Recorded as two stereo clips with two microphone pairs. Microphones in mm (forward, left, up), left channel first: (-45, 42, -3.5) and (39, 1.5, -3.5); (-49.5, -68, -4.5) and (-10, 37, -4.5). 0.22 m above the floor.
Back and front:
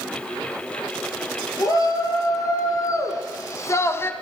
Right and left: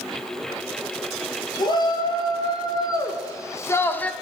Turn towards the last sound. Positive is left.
turn(degrees=-175)